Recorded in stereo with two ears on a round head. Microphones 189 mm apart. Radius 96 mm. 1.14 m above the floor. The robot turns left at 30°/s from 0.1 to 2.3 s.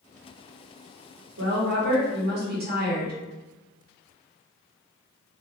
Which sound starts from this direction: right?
A woman speaking, at 1.4 s.